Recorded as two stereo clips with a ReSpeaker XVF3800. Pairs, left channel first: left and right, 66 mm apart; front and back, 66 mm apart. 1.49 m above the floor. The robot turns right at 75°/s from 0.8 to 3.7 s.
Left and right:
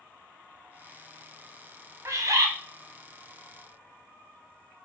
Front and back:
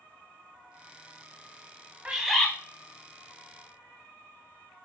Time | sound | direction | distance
2.0 | a bird | 110° right | 0.7 m